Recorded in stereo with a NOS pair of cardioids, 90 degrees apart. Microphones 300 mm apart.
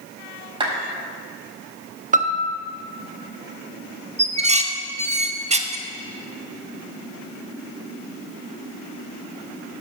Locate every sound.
0.6 s a clap: 15° right, 4.5 m
2.1 s a piano: 25° right, 1.0 m
4.2 s dishes clattering: 20° right, 1.1 m